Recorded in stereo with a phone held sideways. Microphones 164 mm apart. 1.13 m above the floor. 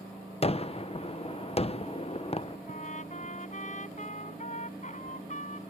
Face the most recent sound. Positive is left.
turn(degrees=50)  # may be behind; listen again after turning